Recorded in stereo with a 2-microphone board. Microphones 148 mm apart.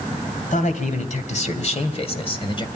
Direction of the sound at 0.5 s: 60° left (ahead or behind).